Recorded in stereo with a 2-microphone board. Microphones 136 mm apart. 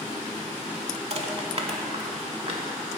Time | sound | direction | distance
1.1 | crushing | 50° right (ahead or behind) | 0.6 m